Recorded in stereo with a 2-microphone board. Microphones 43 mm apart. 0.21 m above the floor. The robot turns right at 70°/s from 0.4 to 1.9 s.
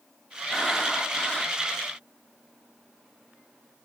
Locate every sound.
0.5 s breathing: 10° left (ahead or behind), 1.8 m; by 1.6 s 30° left (ahead or behind), 1.8 m